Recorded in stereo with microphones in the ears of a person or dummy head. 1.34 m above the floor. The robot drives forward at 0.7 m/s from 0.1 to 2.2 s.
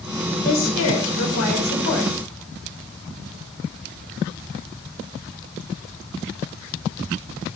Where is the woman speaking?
80° left, 5 m; by 2.2 s 65° left (ahead or behind), 5.5 m.